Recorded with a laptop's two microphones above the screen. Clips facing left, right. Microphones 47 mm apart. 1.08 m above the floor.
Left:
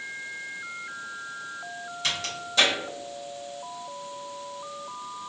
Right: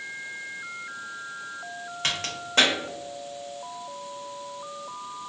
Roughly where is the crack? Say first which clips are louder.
Right 1 dB; right.